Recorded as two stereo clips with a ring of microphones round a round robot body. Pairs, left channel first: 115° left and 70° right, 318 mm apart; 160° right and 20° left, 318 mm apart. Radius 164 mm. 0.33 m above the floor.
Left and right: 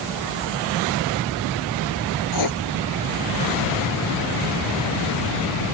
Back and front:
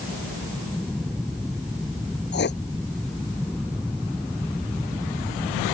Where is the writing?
145° left.